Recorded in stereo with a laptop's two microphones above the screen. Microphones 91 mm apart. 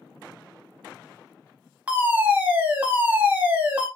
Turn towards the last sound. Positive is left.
turn(degrees=-20)  # may be behind; listen again after turning